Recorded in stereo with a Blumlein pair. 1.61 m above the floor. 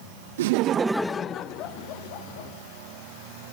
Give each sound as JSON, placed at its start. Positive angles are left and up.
{"t": 0.4, "sound": "laughter", "azimuth_deg": -60, "distance_m": 0.6}